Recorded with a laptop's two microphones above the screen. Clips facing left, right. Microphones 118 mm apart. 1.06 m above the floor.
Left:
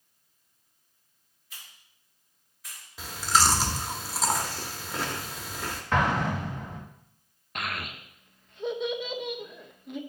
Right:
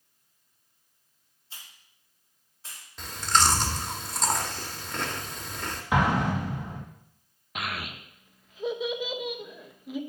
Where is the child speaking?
5° right (ahead or behind), 0.7 m.